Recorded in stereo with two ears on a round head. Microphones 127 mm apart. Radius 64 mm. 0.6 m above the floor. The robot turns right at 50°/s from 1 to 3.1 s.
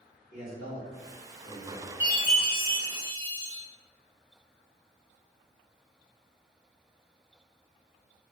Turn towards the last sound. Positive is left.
turn(degrees=130)